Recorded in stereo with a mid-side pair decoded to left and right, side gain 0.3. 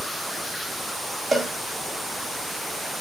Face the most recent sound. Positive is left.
turn(degrees=-50)